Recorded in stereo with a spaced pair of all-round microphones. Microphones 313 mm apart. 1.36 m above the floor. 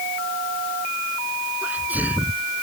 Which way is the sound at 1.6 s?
5° right (ahead or behind).